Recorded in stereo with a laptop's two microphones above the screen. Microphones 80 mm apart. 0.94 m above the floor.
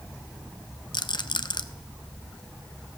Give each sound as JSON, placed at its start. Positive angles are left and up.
{"t": 0.9, "sound": "a rattle", "side_deg": 65, "distance_m": 0.6}